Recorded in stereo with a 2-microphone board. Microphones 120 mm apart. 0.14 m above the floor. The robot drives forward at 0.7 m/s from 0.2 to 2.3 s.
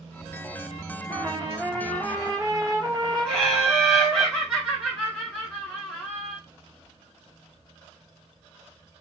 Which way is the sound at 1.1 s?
50° right (ahead or behind).